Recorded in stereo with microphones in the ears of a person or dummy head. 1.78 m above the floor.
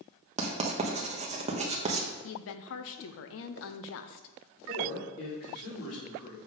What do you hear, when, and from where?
0.4 s writing: 40° right (ahead or behind), 1.2 m
2.2 s a woman speaking: 65° left (ahead or behind), 0.8 m
4.7 s a man speaking: 80° left, 4.5 m